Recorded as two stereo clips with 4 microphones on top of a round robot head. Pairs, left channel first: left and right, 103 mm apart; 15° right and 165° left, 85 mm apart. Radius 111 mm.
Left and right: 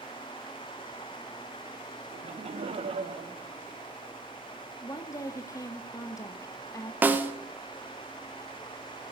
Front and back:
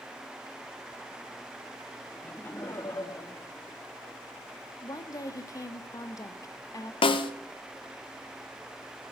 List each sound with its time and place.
2.1 s laughter: 85° right, 1.2 m; by 4.2 s 60° right, 2.5 m
4.8 s a woman speaking: 30° left, 1.9 m
7.0 s a snare drum: 15° right, 1.3 m